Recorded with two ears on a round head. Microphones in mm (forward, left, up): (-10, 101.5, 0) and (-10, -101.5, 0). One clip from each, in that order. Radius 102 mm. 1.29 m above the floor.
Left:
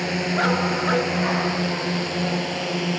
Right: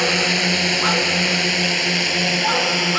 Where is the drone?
70° right (ahead or behind); by 3.0 s 50° right (ahead or behind).